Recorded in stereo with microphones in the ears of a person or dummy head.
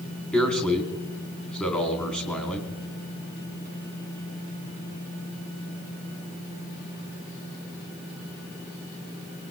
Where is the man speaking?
10° left (ahead or behind), 4 m.